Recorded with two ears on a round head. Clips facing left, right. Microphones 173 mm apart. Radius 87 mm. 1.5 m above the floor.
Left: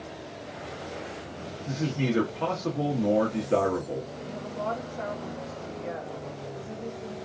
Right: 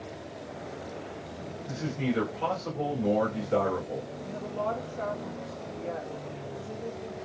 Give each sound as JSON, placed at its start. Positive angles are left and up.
{"t": 1.7, "sound": "a man speaking", "side_deg": 65, "distance_m": 1.1}
{"t": 4.2, "sound": "a woman speaking", "side_deg": 10, "distance_m": 1.6}